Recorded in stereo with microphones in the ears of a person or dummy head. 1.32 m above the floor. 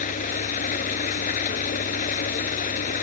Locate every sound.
0.0 s an engine running: 45° left (ahead or behind)